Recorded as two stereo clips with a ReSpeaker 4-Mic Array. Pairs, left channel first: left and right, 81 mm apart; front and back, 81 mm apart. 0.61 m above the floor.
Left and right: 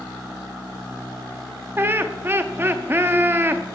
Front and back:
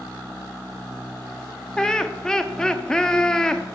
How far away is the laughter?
About 0.6 m.